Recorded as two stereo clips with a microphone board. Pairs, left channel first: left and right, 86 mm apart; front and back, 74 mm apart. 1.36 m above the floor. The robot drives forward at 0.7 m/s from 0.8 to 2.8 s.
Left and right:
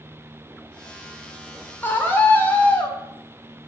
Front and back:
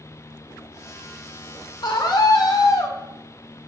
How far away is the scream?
About 4 m.